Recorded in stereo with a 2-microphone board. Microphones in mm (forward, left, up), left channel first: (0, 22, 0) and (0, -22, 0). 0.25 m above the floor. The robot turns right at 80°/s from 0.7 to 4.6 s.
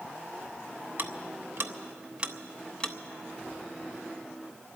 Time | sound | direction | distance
1.0 | ticking | 45° right (ahead or behind) | 0.6 m